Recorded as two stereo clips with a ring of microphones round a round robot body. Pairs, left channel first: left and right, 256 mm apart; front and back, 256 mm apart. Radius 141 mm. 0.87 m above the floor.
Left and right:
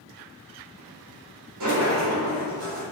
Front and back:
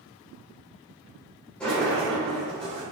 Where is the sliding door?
85° right, 3.5 m.